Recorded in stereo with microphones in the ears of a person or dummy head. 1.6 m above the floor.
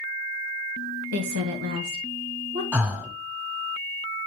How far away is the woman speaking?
About 0.6 m.